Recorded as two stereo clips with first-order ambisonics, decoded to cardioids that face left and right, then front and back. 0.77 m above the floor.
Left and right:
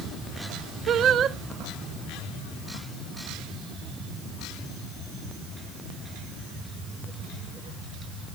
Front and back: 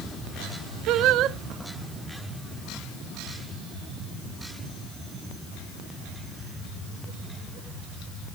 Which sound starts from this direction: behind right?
Singing, at 0.9 s.